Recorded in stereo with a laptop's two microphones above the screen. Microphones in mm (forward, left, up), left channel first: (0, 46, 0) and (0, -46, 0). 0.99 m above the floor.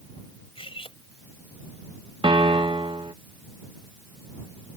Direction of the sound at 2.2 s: 65° right (ahead or behind).